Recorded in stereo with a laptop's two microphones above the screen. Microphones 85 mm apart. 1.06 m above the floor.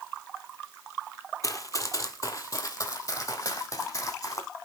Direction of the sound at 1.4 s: 40° left (ahead or behind).